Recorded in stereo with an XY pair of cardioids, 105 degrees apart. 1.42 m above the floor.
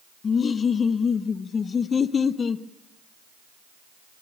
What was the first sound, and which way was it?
Laughter, 40° left.